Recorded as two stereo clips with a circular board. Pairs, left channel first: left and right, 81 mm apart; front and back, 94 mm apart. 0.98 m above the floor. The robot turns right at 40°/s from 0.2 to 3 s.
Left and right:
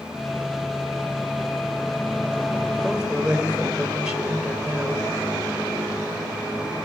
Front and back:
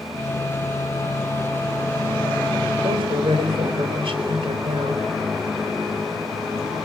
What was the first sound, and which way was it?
A woman speaking, 175° right.